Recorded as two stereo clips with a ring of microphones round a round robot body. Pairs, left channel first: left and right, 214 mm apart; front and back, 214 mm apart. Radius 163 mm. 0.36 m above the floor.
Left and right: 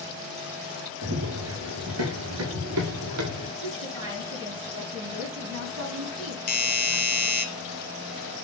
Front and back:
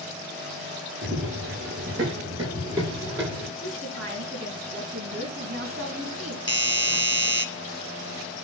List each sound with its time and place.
1.0 s running footsteps: 125° right, 4 m; by 3.5 s 90° right, 3.5 m
3.6 s a woman speaking: 115° right, 4 m
6.5 s a doorbell: 65° left, 2.5 m